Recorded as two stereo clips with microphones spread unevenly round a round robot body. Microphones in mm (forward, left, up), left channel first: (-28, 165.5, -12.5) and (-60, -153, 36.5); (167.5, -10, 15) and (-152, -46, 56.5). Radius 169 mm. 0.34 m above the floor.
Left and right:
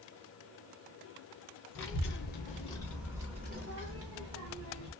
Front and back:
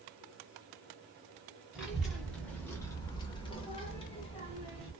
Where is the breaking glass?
I don't hear breaking glass.